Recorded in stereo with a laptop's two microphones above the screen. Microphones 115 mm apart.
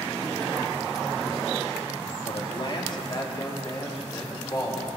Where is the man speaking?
50° left (ahead or behind), 2.5 m; by 5.0 s 30° left (ahead or behind), 4 m.